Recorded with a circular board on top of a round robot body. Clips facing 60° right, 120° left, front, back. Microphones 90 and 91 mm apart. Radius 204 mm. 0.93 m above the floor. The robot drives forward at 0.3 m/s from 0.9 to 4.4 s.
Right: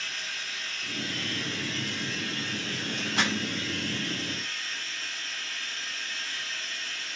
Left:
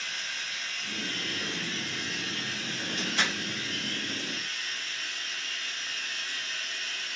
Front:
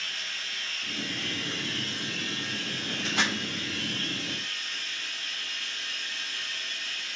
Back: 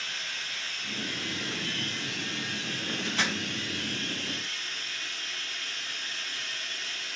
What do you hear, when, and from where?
0.0 s running water: 140° right, 0.9 m; by 7.2 s 165° right, 1.7 m
3.2 s crumpling: 20° right, 0.8 m